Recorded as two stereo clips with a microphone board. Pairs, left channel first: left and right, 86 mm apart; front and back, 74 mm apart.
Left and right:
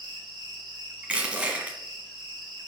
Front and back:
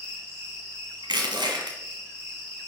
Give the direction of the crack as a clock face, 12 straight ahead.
I don't hear a crack.